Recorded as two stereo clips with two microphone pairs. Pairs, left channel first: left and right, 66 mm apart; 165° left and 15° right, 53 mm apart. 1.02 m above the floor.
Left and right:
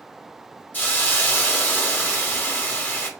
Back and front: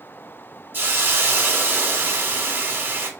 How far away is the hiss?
About 1.1 m.